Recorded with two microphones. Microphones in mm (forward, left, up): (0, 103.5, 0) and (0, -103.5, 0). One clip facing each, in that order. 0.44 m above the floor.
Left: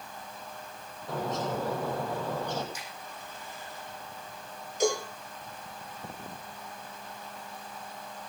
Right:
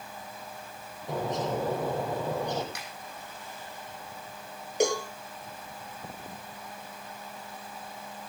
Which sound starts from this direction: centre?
A bird, at 1.1 s.